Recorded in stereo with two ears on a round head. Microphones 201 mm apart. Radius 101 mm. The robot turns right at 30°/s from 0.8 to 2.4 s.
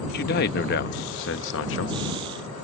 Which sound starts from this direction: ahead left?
A man speaking, at 0.1 s.